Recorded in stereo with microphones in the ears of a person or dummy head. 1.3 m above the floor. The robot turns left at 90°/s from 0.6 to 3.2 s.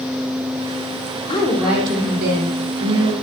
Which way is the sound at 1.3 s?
25° left.